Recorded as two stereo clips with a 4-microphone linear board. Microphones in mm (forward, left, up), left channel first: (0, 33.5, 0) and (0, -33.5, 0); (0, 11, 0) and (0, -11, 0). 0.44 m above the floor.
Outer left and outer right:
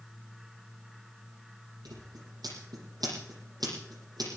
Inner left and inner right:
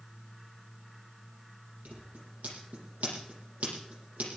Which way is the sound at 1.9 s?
80° right.